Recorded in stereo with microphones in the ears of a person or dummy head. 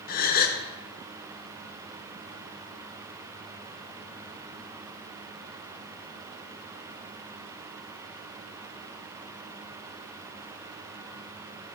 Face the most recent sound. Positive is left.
turn(degrees=40)  # may be behind; listen again after turning